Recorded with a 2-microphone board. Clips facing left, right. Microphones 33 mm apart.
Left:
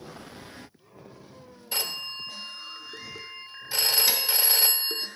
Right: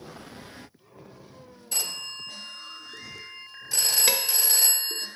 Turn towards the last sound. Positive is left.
turn(degrees=-50)  # may be behind; listen again after turning